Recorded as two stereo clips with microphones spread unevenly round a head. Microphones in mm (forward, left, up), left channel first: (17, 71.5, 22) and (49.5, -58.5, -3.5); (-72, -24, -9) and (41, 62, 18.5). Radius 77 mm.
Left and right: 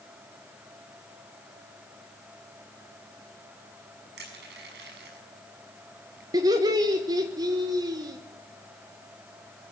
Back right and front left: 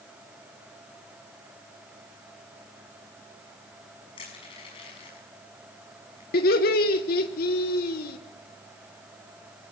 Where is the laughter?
140° right, 1.5 m.